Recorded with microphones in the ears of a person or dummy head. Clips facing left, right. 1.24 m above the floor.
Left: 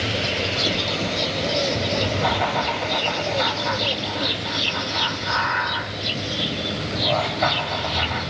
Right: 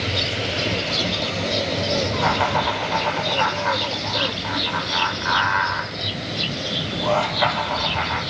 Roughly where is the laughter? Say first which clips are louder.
Right 1 dB; right.